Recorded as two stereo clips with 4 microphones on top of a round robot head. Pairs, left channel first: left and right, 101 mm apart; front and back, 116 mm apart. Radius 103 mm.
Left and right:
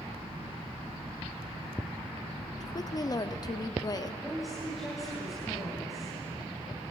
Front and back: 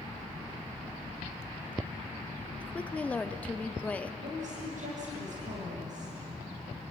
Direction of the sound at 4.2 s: Straight behind.